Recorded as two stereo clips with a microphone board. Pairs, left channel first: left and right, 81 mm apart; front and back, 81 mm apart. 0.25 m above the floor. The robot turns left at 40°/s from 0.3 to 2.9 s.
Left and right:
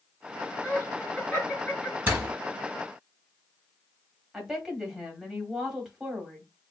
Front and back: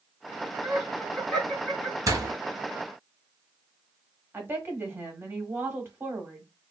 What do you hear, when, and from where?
0.6 s laughter: 75° left, 1.6 m; by 2.0 s 25° left, 1.6 m
2.1 s a door slam: 150° right, 1.1 m; by 2.4 s 165° right, 1.1 m
4.3 s a woman speaking: 165° right, 1.2 m